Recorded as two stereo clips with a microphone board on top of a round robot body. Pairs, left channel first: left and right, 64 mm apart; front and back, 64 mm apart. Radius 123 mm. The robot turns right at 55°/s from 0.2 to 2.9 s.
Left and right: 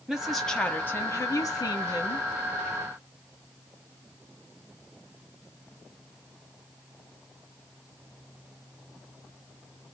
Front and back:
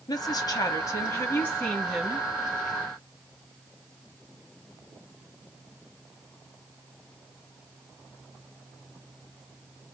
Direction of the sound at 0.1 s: 5° right.